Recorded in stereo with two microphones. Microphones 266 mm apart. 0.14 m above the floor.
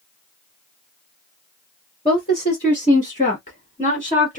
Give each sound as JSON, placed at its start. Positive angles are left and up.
{"t": 2.0, "sound": "a woman speaking", "side_deg": 25, "distance_m": 1.9}